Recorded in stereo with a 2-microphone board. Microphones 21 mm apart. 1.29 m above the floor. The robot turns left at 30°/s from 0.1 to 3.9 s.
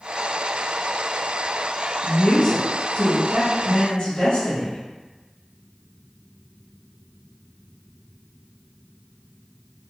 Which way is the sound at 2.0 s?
105° left.